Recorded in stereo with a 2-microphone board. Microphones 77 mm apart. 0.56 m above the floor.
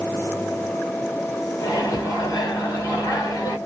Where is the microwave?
50° left (ahead or behind), 1.5 m.